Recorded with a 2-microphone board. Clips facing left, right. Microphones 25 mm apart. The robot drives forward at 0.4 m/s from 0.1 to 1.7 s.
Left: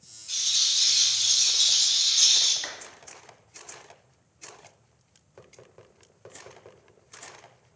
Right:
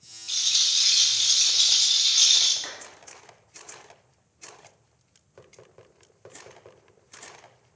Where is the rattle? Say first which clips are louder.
Right 2 dB; 45° right (ahead or behind), 1.3 m.